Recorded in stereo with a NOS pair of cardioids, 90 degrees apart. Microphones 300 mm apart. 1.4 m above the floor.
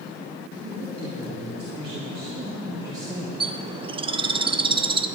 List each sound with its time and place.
0.6 s a woman speaking: 20° right, 3.5 m; by 3.3 s 10° right, 1.5 m
3.4 s a bird: 20° right, 0.6 m